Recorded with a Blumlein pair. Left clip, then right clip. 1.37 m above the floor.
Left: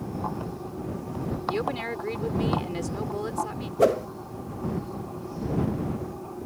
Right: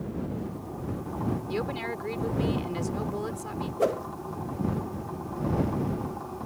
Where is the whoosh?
20° left.